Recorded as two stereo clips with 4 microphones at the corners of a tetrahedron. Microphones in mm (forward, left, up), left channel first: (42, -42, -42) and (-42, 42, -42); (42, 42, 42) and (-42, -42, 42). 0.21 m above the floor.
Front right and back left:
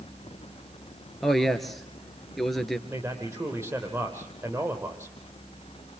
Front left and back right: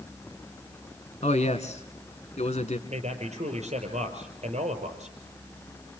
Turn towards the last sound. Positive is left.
turn(degrees=-155)